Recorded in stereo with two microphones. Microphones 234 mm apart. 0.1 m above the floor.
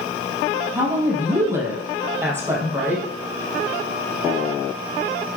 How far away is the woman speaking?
About 4.5 m.